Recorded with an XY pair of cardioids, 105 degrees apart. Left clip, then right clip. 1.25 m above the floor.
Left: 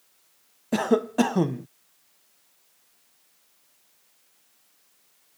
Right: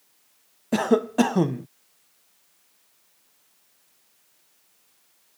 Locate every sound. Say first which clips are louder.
0.7 s a cough: right 2 dB; 10° right